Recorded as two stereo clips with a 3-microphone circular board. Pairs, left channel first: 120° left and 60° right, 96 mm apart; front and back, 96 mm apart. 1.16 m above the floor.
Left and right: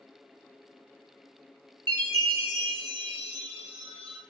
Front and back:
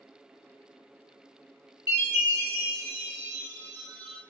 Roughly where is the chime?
Ahead right.